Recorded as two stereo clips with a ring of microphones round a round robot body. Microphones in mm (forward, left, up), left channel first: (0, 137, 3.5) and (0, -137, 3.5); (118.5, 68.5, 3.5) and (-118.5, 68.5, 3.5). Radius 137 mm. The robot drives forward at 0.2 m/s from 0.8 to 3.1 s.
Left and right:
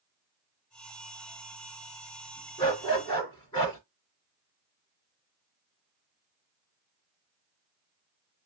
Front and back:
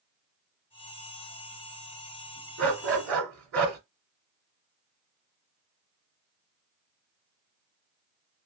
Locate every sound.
2.6 s a dog barking: 165° left, 2.5 m